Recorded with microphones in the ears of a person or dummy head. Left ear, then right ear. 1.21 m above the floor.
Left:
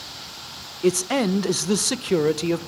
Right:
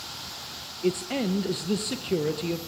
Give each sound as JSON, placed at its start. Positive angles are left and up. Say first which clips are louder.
{"t": 0.8, "sound": "a man speaking", "louder": "left 7 dB", "side_deg": 50, "distance_m": 0.5}